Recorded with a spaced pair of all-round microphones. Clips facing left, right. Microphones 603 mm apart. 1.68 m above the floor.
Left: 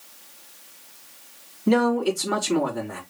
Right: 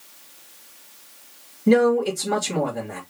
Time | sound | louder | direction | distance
1.7 | a man speaking | right 3 dB | 45° right (ahead or behind) | 3 m